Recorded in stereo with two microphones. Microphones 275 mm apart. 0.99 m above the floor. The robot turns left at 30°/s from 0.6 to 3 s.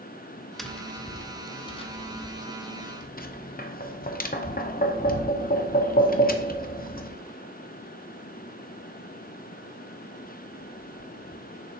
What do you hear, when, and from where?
0.6 s tapping: centre (ahead or behind), 0.6 m; by 7.2 s 30° left (ahead or behind), 0.6 m